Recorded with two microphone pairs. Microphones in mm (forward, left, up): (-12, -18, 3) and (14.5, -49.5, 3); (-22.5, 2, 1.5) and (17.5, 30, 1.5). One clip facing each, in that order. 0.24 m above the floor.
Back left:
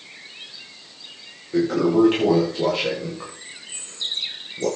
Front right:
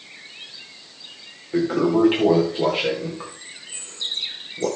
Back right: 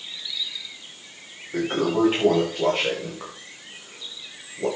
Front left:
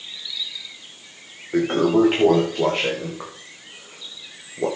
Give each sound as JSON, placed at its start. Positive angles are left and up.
{"t": 1.5, "sound": "a toilet flushing", "azimuth_deg": 20, "distance_m": 9.0}